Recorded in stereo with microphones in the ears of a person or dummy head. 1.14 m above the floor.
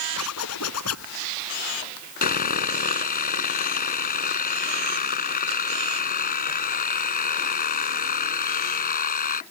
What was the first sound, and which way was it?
A zipper, 90° left.